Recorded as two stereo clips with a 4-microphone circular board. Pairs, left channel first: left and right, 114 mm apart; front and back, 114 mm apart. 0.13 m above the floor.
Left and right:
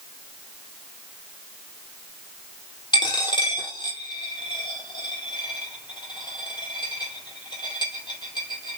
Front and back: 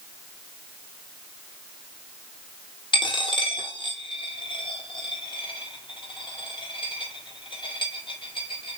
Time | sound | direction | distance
2.9 | a dropped coin | 40° left | 0.8 m